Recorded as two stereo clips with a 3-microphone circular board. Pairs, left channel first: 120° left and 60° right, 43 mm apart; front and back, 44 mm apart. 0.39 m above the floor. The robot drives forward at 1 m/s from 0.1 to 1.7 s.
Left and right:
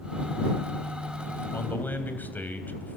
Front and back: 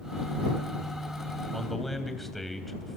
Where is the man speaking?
85° left, 2.5 m; by 3.0 s 90° left, 2.5 m.